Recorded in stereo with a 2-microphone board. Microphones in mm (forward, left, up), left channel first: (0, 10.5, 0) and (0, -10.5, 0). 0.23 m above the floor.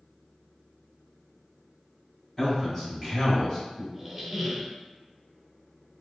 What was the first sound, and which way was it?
A man speaking, 25° left (ahead or behind).